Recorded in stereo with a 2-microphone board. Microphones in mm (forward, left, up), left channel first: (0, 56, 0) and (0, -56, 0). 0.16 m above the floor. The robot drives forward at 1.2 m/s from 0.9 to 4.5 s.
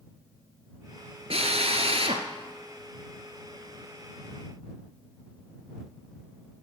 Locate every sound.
1.3 s a drill: 60° right (ahead or behind), 1.9 m; by 2.3 s 55° right (ahead or behind), 2 m